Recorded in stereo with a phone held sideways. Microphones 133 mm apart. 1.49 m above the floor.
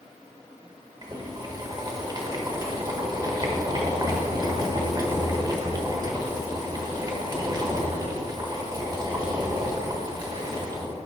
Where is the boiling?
30° right (ahead or behind), 1.3 m.